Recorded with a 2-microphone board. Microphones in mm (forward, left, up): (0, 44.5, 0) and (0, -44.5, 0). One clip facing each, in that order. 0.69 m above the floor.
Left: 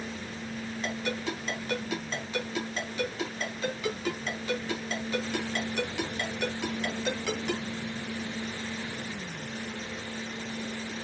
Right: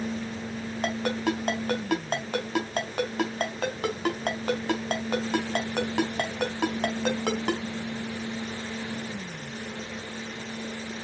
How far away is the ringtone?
About 3.5 m.